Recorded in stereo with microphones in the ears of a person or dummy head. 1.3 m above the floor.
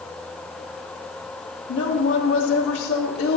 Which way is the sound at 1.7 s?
75° left (ahead or behind).